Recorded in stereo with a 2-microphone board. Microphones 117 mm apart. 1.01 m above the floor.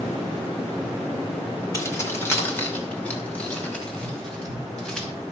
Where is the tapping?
5° right (ahead or behind), 4.5 m.